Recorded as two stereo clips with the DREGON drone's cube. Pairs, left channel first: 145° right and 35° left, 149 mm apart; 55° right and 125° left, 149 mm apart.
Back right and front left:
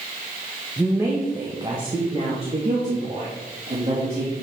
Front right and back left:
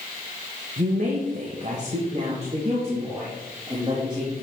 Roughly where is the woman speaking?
Behind left.